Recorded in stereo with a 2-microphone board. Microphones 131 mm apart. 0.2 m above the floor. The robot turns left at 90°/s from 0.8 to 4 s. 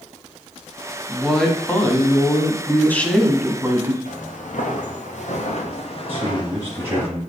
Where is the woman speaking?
5° right (ahead or behind), 1.1 m; by 4.0 s 25° right (ahead or behind), 1.1 m.